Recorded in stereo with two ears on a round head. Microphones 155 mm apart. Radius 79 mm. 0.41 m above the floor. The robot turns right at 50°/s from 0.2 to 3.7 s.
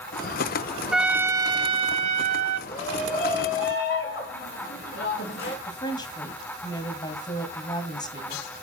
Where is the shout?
45° left, 4.5 m; by 5.6 s 95° left, 4.5 m.